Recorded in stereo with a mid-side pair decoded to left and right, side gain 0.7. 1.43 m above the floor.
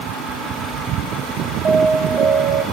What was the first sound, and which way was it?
An alarm, 30° right.